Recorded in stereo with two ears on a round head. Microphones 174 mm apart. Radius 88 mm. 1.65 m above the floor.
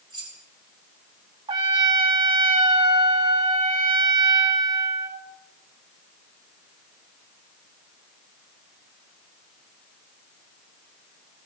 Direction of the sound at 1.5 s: 25° right (ahead or behind).